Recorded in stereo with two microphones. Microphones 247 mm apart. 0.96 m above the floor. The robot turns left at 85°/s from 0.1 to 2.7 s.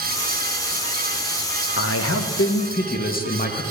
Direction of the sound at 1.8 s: 120° left.